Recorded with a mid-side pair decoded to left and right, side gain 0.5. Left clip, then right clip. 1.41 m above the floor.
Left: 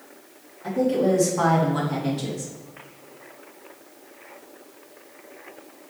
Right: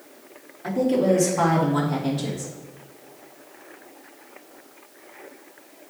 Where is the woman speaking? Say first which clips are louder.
Right 1 dB; 20° right, 3.5 m; by 2.5 s 5° right, 2.5 m.